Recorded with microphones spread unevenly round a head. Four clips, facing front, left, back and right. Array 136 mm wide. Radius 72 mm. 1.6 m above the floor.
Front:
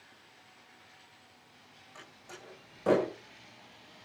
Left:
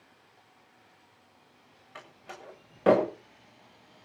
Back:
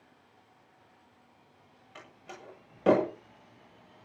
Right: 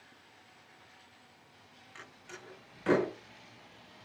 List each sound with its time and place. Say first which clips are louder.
1.9 s a door slam: left 5 dB, back 3 dB; 120° left, 7.5 m